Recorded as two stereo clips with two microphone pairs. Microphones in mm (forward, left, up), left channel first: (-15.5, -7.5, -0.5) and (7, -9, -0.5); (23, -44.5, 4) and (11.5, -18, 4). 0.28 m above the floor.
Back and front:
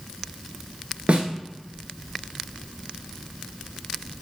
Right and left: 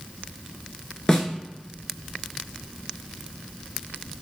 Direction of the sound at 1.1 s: Straight ahead.